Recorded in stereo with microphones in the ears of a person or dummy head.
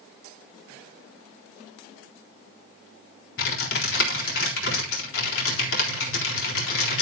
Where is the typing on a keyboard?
75° left (ahead or behind), 4 m.